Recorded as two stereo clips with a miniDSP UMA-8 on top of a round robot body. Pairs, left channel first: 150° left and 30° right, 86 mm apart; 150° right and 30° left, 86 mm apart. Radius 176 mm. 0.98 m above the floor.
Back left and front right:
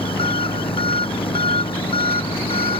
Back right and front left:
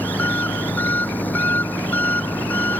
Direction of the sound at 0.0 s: 140° left.